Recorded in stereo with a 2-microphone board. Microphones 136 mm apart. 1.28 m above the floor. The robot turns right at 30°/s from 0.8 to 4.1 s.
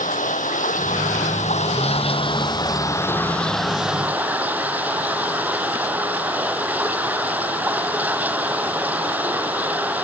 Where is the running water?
95° left; by 10.0 s 170° right.